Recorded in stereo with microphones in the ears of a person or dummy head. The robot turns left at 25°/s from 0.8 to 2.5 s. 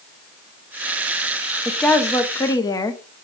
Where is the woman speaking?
Centre (ahead or behind), 0.8 m; by 3.0 s 20° left (ahead or behind), 0.8 m.